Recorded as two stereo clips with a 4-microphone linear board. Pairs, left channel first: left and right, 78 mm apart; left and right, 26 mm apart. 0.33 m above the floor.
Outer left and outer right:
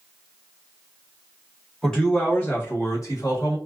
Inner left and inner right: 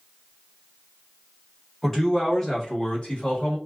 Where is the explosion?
No explosion in this recording.